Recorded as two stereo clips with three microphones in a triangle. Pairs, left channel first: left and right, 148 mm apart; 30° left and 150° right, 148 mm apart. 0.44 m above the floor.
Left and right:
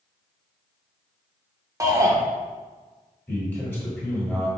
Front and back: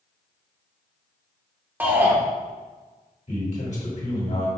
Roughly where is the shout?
Right.